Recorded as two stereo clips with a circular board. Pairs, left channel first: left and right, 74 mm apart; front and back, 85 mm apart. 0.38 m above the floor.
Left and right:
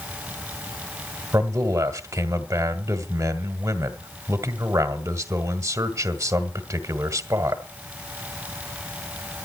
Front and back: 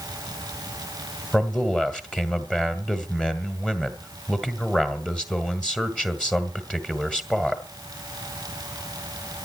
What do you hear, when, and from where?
1.3 s a man speaking: 75° right, 1.6 m